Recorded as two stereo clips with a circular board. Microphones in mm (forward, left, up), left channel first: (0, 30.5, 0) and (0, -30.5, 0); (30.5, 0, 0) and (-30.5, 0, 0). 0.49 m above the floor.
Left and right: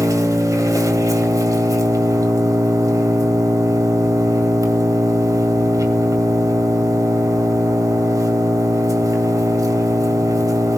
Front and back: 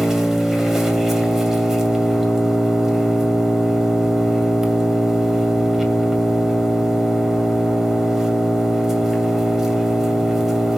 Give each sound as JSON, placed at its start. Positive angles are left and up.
{"t": 0.0, "sound": "an engine running", "azimuth_deg": -100, "distance_m": 2.5}